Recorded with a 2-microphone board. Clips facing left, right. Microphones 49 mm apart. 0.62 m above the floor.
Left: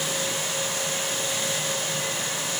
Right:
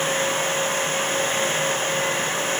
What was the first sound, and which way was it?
Only background noise.